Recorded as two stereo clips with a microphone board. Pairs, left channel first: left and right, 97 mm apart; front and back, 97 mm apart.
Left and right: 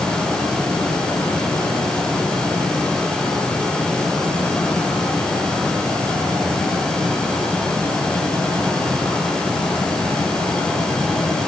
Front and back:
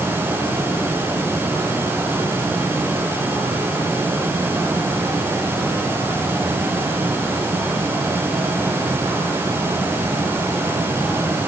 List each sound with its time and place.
Only background noise.